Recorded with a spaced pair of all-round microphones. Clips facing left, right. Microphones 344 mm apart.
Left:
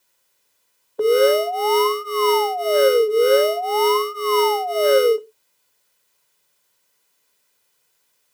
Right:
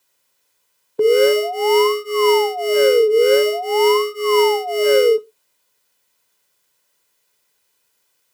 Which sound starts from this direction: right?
An alarm, at 1.0 s.